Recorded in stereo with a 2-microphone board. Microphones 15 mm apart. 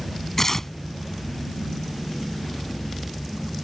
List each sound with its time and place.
0.4 s tearing paper: 30° left (ahead or behind)